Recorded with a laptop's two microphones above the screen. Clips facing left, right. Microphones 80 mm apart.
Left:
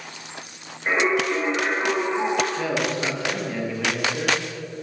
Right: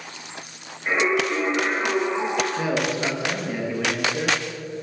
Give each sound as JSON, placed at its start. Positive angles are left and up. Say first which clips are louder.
{"t": 0.9, "sound": "singing", "louder": "even", "side_deg": 25, "distance_m": 3.5}
{"t": 2.6, "sound": "a man speaking", "louder": "right 1 dB", "side_deg": -15, "distance_m": 1.0}